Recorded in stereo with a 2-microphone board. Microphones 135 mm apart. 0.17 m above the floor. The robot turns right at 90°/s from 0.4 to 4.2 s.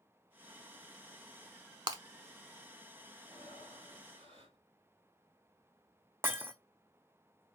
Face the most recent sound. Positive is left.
turn(degrees=-20)  # may be behind; listen again after turning